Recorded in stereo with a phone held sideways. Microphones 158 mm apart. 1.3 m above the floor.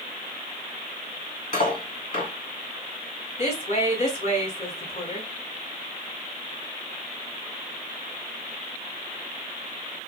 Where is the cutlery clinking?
50° left (ahead or behind), 2 m.